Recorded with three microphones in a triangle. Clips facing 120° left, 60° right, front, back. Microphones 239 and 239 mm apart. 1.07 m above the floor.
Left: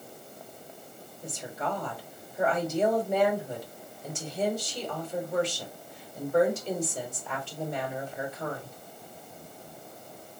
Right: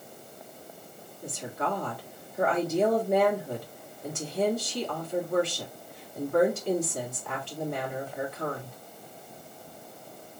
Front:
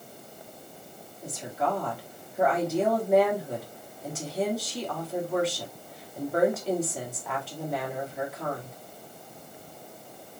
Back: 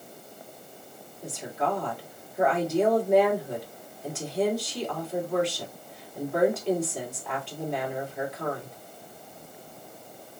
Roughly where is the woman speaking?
Right.